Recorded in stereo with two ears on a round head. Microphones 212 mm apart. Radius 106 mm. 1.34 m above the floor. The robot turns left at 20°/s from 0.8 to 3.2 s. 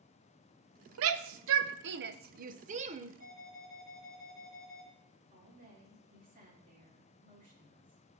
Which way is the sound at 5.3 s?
35° right (ahead or behind).